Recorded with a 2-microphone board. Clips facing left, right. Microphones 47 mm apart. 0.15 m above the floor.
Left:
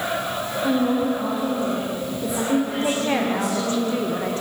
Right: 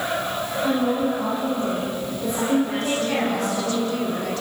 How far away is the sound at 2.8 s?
About 7 m.